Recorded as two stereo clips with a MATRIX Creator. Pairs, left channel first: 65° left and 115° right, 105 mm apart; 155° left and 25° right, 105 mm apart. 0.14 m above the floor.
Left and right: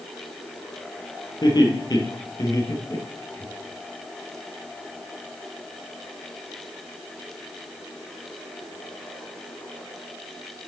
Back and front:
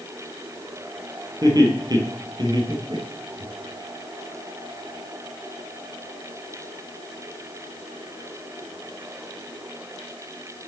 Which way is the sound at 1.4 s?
25° left.